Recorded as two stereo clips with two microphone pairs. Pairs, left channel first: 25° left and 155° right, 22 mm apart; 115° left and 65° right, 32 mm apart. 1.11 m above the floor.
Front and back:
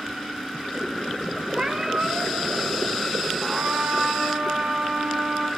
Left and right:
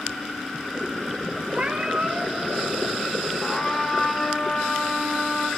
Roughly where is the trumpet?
Behind.